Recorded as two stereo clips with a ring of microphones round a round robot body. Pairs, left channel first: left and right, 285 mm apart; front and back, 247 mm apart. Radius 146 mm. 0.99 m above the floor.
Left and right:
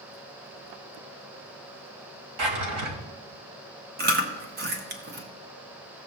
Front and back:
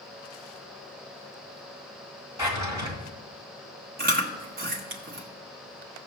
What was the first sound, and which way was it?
A drawer, 100° right.